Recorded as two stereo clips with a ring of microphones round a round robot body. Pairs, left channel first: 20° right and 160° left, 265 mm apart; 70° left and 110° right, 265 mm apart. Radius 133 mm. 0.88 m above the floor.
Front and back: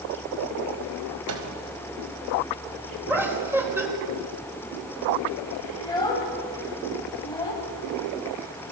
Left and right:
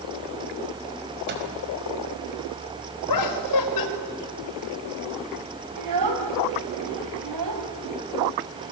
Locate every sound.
1.3 s a microwave: 165° right, 4.5 m
3.1 s laughter: 75° left, 4.5 m
5.8 s a child speaking: 100° right, 3 m